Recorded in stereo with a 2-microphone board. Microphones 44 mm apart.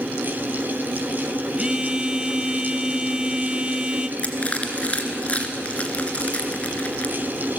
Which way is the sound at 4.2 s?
30° left (ahead or behind).